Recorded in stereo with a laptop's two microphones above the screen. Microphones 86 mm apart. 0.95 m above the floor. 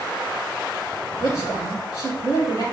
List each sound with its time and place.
1.2 s a woman speaking: 70° right (ahead or behind), 2 m